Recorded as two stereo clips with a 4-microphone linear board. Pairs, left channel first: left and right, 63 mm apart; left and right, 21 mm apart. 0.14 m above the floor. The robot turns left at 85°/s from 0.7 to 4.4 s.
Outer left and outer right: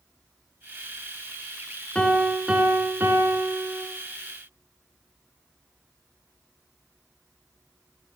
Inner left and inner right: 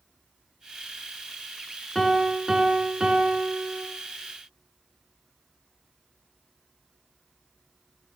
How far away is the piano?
About 0.7 m.